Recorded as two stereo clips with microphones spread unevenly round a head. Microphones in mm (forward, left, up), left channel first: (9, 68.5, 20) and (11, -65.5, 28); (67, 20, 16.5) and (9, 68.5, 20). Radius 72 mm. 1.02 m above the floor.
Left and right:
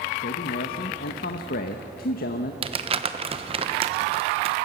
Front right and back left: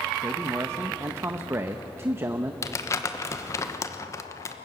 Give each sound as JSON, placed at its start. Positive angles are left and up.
{"t": 0.2, "sound": "a man speaking", "azimuth_deg": 80, "distance_m": 1.0}
{"t": 2.6, "sound": "crumpling", "azimuth_deg": -60, "distance_m": 1.0}